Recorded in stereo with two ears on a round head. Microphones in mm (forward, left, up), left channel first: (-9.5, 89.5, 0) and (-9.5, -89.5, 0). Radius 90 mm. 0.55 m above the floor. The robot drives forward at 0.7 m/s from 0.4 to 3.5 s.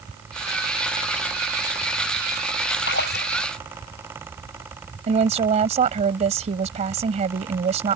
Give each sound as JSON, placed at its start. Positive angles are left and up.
{"t": 2.9, "sound": "a splash", "side_deg": 50}
{"t": 5.1, "sound": "a woman speaking", "side_deg": -35}